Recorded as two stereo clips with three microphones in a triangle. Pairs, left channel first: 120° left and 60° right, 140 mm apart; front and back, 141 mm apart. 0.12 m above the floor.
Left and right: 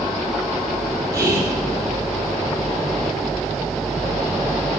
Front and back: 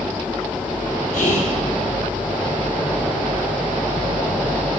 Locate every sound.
1.1 s whispering: 5° left, 4.5 m